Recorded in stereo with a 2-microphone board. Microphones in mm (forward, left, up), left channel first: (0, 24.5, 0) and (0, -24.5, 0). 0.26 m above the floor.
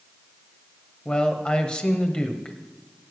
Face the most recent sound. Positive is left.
turn(degrees=20)  # may be behind; listen again after turning